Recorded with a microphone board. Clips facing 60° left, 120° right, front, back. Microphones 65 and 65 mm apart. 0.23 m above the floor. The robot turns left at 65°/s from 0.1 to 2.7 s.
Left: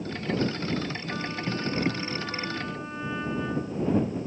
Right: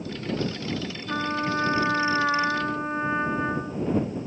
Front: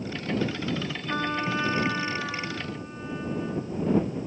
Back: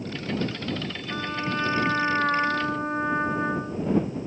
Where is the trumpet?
60° right; by 3.9 s 170° right.